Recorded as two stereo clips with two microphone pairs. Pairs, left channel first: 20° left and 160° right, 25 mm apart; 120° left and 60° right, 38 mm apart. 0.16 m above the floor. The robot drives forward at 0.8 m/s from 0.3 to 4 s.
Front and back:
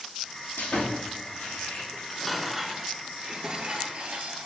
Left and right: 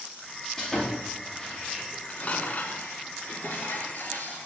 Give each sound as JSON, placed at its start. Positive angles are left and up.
{"t": 0.6, "sound": "sawing", "azimuth_deg": 45, "distance_m": 6.0}
{"t": 1.9, "sound": "dishes clattering", "azimuth_deg": 85, "distance_m": 1.0}